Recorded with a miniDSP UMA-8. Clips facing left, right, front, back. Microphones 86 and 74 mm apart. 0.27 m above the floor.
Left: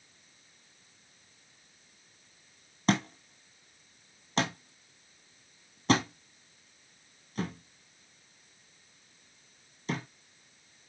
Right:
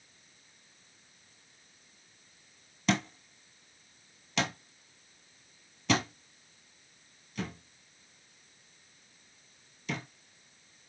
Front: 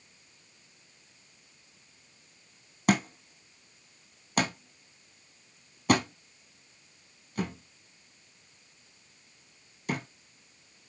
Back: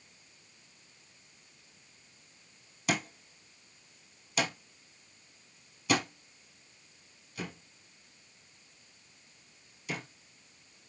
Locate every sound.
2.9 s a thud: 35° left, 1.1 m